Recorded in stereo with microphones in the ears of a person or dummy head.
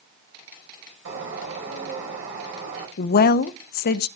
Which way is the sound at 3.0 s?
50° left (ahead or behind).